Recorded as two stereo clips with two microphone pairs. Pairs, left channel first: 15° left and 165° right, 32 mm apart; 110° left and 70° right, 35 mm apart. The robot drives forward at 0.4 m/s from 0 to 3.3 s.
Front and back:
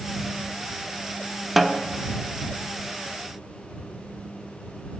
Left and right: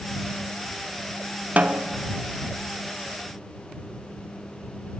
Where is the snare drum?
80° right, 1.0 m; by 1.9 s 90° right, 1.0 m.